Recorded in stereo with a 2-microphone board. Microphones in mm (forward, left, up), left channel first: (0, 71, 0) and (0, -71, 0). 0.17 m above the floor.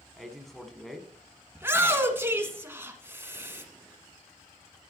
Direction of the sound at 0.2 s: Centre (ahead or behind).